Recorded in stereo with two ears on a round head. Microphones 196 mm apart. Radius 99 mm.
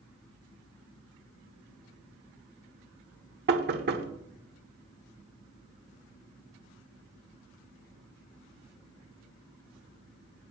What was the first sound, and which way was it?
Knocking, 50° right (ahead or behind).